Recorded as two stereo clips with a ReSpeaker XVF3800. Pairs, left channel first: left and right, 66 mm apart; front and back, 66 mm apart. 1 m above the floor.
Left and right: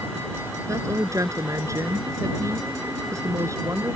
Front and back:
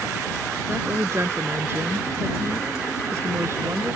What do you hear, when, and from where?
0.7 s a woman speaking: 130° right